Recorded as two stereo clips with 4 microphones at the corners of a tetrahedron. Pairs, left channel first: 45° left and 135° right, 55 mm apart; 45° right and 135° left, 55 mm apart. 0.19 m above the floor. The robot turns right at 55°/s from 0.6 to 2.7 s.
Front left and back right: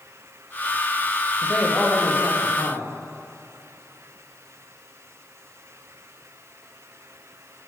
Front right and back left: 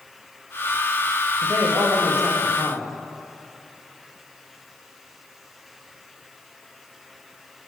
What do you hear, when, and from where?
1.4 s a man speaking: 115° left, 6 m; by 3.0 s 175° right, 6 m